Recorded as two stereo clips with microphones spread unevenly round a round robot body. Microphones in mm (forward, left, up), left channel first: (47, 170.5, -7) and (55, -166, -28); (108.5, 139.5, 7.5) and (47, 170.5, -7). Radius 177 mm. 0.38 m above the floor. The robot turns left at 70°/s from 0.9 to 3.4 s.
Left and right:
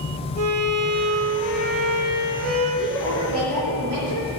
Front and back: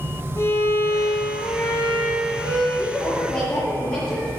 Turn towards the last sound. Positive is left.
turn(degrees=-75)